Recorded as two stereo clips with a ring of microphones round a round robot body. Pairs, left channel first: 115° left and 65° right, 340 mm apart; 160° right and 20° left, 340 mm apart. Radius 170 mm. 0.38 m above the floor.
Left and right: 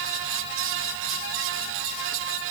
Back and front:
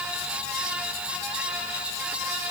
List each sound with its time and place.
Only background noise.